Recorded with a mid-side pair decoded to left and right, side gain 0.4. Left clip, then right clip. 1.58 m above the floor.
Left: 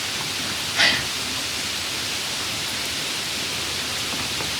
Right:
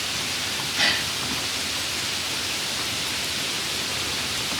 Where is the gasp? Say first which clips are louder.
Left 3 dB; 70° left, 1.4 m.